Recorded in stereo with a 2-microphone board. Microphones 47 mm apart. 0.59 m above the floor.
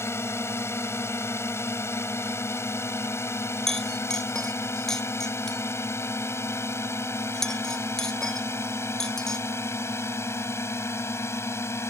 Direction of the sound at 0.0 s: 65° left (ahead or behind).